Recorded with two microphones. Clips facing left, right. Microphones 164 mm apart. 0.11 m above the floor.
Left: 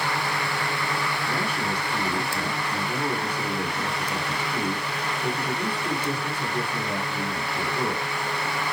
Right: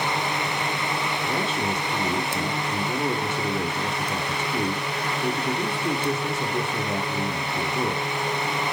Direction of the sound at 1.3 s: 25° right (ahead or behind).